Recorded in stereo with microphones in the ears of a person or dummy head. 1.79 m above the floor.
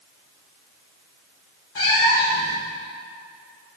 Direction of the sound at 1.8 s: 25° left (ahead or behind).